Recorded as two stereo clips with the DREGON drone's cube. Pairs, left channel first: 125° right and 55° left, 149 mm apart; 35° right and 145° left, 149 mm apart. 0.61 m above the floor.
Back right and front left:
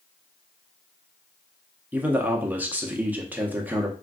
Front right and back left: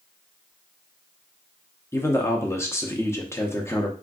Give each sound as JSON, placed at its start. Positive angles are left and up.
{"t": 1.9, "sound": "a man speaking", "azimuth_deg": 0, "distance_m": 0.6}